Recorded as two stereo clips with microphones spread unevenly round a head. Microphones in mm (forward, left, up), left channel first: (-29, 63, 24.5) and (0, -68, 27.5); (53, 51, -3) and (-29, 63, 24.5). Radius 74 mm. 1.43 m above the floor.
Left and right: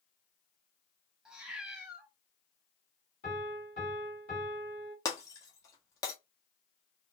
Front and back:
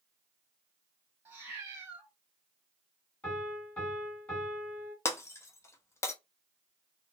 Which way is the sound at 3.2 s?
70° left.